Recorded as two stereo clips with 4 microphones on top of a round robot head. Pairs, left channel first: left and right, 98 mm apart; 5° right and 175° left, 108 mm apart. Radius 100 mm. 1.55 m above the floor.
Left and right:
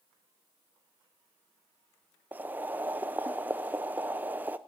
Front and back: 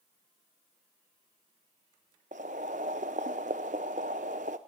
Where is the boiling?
160° right, 0.5 m.